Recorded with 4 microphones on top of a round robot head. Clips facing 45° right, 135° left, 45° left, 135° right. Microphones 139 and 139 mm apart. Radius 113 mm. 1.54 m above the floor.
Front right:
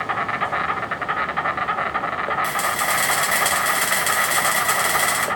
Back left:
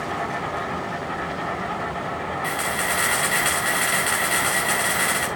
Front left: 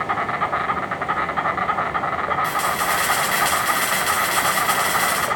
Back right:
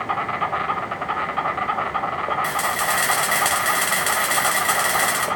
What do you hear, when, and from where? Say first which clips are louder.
0.0 s an insect: front right 1 dB, front left 1 dB; 50° right, 1.4 m
2.4 s a camera shutter: front right 2 dB, front left 1 dB; 95° right, 5.5 m